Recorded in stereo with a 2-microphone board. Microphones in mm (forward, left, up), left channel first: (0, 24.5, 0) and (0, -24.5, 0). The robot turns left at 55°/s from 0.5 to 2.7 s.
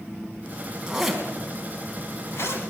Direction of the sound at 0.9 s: 15° right (ahead or behind).